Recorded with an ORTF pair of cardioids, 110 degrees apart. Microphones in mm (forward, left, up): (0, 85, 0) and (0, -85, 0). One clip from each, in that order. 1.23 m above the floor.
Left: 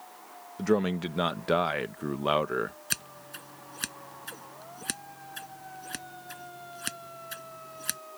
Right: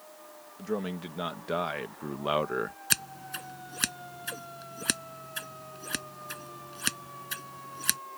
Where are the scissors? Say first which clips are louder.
Right 5 dB; 35° right.